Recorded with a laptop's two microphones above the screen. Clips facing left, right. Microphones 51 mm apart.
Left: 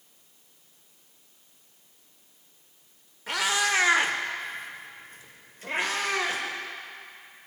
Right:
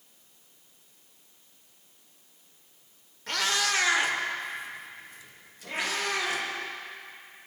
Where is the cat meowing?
10° left (ahead or behind), 0.8 m; by 6.4 s 40° left (ahead or behind), 1.3 m.